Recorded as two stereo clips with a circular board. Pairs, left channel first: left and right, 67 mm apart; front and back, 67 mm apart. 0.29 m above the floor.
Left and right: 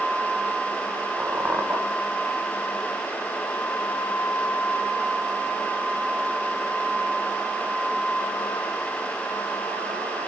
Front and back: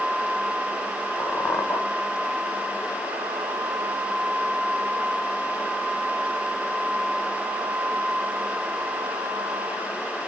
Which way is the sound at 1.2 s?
40° right.